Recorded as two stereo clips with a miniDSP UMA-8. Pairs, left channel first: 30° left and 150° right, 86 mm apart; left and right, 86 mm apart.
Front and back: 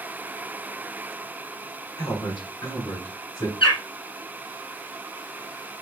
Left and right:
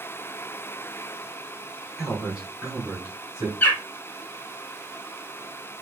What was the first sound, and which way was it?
A man speaking, 5° right.